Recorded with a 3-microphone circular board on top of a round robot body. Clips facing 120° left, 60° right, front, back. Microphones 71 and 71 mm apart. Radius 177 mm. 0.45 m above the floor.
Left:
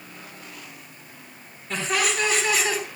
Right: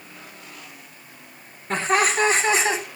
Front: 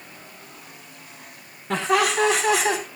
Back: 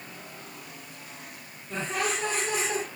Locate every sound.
1.7 s laughter: 10° right, 5 m; by 2.8 s 5° left, 4 m